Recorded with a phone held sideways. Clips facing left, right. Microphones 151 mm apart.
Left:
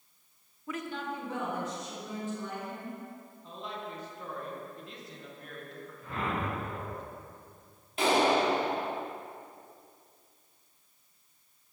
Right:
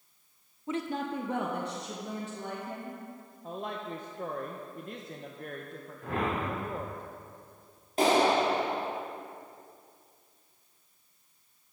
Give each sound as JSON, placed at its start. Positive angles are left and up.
{"t": 0.7, "sound": "a woman speaking", "side_deg": -20, "distance_m": 0.7}
{"t": 3.4, "sound": "a woman speaking", "side_deg": -50, "distance_m": 1.0}
{"t": 6.0, "sound": "a whoosh", "side_deg": -85, "distance_m": 2.0}
{"t": 8.0, "sound": "a clap", "side_deg": -40, "distance_m": 2.5}